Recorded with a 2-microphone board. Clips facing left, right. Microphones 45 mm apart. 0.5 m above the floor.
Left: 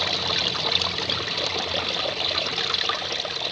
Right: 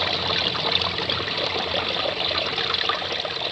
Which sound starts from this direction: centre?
Running water, at 0.0 s.